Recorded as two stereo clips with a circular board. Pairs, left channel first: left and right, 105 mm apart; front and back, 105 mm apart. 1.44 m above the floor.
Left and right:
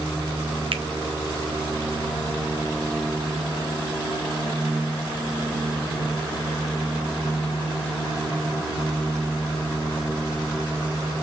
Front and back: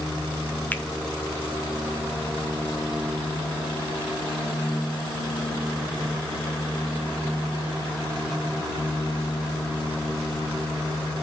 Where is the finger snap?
70° right, 0.7 m.